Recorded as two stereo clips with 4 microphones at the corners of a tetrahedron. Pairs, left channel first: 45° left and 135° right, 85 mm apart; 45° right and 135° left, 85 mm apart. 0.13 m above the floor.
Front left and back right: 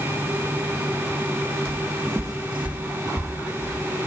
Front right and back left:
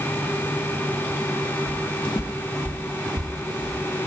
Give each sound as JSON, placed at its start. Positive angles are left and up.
{"t": 1.7, "sound": "footsteps", "azimuth_deg": -55, "distance_m": 1.5}